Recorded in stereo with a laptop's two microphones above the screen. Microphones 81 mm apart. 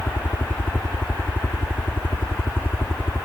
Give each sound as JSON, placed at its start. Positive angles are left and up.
{"t": 0.0, "sound": "a helicopter", "side_deg": 25}